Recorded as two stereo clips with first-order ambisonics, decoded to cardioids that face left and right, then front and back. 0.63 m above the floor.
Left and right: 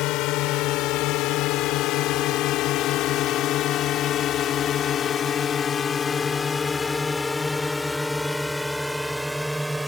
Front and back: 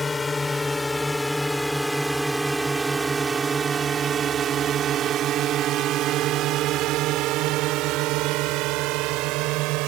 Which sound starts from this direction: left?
A drone, at 0.0 s.